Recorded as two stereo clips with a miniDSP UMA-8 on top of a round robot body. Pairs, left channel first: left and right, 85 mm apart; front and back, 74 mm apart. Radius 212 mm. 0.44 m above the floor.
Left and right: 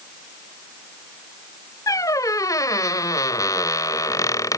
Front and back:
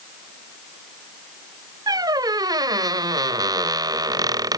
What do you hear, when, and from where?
1.9 s a squeak: 145° left